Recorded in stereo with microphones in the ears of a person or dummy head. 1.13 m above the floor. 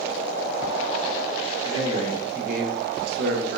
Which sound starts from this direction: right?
A man speaking, at 1.6 s.